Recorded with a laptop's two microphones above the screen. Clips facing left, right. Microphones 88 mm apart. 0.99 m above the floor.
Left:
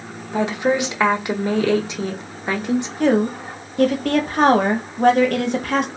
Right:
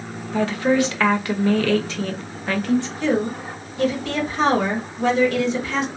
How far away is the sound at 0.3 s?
About 0.6 m.